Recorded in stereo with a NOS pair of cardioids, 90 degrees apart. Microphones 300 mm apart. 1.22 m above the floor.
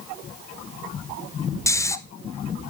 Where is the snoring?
10° left, 0.6 m.